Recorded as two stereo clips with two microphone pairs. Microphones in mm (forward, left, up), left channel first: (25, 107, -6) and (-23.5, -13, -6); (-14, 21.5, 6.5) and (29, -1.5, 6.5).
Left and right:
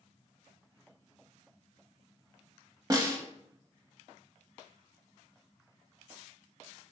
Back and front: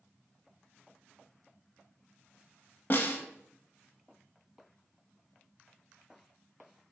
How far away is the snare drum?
About 0.5 m.